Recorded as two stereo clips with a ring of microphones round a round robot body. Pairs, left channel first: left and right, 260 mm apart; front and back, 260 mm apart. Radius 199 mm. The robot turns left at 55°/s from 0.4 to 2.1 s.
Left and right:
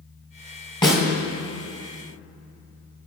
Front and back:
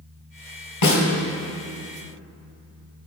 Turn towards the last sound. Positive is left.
turn(degrees=-55)